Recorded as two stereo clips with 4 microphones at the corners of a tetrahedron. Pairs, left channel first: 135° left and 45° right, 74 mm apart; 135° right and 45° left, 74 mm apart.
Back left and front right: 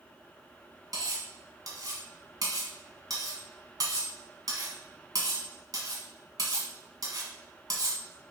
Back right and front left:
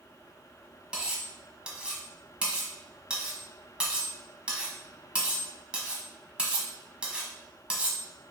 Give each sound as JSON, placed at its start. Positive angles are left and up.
{"t": 0.9, "sound": "cutlery clinking", "azimuth_deg": -30, "distance_m": 1.2}